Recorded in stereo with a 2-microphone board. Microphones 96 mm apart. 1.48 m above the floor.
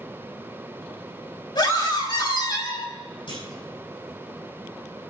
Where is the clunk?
60° left (ahead or behind), 5.5 m.